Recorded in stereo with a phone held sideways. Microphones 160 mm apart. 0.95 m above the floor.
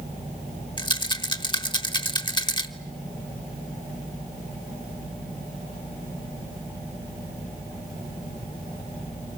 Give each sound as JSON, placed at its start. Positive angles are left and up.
{"t": 0.8, "sound": "a rattle", "side_deg": 30, "distance_m": 1.2}